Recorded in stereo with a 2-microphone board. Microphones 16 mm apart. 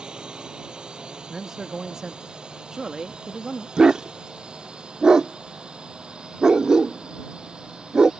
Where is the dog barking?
45° right (ahead or behind).